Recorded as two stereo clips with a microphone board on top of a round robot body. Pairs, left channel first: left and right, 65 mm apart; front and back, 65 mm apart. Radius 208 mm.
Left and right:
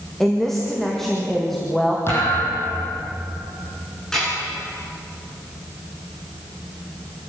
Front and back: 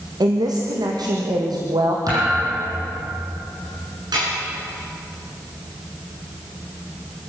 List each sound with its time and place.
0.2 s a woman speaking: 175° left, 2.5 m
2.1 s a thud: 145° left, 7 m
4.1 s dishes clattering: 175° left, 10 m